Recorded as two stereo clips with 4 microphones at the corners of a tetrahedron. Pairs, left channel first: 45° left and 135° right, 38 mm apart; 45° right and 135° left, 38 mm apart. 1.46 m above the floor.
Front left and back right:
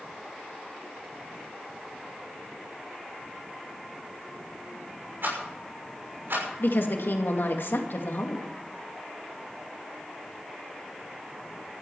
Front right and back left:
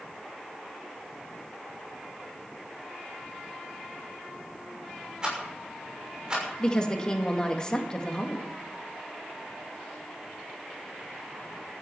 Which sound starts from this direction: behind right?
A rattle, at 5.2 s.